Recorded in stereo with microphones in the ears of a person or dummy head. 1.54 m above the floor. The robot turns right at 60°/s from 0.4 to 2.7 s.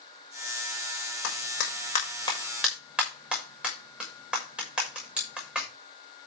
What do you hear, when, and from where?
1.2 s a clap: 85° left, 6.5 m; by 5.7 s 5° right (ahead or behind), 6.5 m